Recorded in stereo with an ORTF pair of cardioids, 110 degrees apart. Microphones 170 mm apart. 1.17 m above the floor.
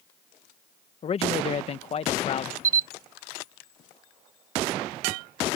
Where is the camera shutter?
20° right.